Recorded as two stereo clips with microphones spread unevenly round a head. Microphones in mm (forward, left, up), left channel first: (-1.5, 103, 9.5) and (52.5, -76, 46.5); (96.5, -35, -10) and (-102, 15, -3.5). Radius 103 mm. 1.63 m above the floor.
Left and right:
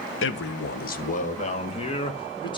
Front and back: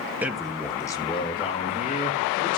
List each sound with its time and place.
0.2 s a man speaking: 85° left, 1.1 m; by 2.6 s 40° left, 2.5 m